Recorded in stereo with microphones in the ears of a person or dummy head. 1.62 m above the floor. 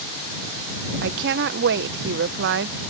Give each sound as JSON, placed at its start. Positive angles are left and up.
{"t": 1.0, "sound": "a woman speaking", "side_deg": -60}